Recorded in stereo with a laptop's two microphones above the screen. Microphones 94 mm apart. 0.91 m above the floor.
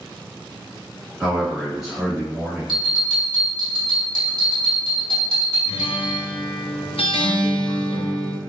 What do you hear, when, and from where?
1.2 s a man speaking: 5° right (ahead or behind), 1.0 m
2.7 s a bell: 65° right (ahead or behind), 1.7 m
5.7 s a guitar: 75° left (ahead or behind), 0.6 m